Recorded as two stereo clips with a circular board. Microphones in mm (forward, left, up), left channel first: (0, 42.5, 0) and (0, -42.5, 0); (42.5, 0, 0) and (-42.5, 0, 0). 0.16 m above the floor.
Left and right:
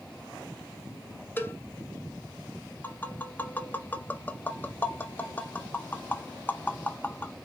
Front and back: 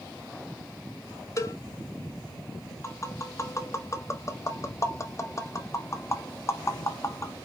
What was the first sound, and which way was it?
A cowbell, 35° left.